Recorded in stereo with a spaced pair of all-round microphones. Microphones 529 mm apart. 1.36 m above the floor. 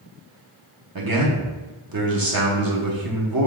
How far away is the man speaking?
About 1.0 m.